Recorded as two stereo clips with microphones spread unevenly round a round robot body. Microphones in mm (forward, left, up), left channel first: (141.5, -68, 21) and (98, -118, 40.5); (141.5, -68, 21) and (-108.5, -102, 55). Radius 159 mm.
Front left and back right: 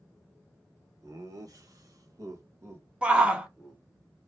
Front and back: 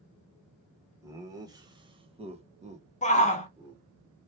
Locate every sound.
1.0 s laughter: 90° right, 1.4 m; by 3.8 s 115° left, 1.0 m
3.0 s a shout: 50° right, 0.9 m